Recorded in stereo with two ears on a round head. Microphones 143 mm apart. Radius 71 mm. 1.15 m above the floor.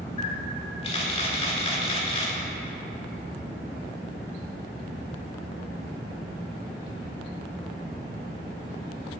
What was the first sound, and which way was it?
A camera shutter, 40° left (ahead or behind).